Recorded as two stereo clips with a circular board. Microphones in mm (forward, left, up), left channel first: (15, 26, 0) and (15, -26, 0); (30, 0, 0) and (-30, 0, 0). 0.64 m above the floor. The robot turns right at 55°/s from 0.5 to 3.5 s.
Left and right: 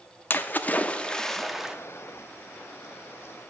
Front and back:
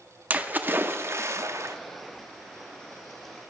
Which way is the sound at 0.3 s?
125° left.